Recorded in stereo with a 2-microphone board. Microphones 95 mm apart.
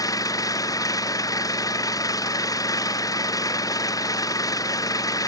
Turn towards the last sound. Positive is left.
turn(degrees=40)  # may be behind; listen again after turning